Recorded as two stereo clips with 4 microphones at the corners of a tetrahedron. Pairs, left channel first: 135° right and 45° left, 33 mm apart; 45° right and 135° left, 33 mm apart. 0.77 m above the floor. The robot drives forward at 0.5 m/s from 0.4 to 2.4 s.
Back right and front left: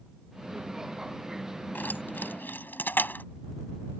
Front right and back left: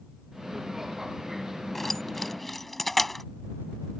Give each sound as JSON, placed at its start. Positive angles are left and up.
{"t": 1.8, "sound": "keys jangling", "azimuth_deg": -130}